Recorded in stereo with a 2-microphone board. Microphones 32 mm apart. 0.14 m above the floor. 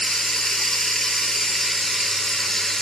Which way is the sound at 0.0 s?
10° left (ahead or behind).